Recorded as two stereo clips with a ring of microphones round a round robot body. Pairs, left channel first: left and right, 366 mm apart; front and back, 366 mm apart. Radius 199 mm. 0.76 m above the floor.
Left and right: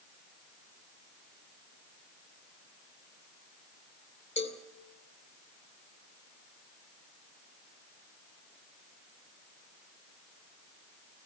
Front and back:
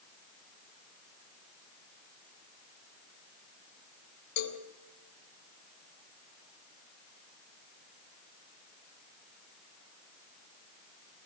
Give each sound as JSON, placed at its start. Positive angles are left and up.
{"t": 4.4, "sound": "a cowbell", "azimuth_deg": 15, "distance_m": 2.5}